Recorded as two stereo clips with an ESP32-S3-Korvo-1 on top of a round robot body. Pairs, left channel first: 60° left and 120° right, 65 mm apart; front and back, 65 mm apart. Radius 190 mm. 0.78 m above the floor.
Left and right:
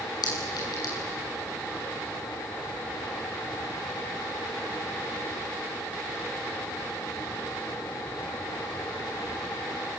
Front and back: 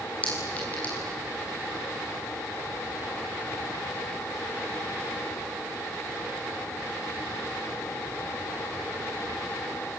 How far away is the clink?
About 7 m.